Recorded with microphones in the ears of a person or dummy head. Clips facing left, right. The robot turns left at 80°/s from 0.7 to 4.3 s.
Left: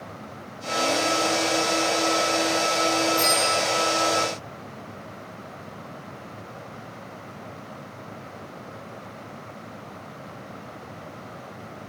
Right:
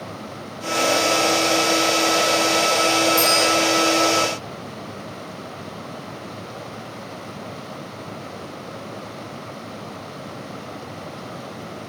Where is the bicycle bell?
85° right, 9 m; by 3.5 s 60° right (ahead or behind), 9 m.